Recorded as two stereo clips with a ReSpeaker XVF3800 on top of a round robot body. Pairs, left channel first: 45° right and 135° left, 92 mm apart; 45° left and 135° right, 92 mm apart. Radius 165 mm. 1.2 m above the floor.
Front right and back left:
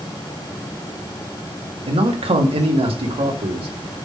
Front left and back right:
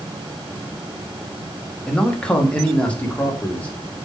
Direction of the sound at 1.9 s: 130° left.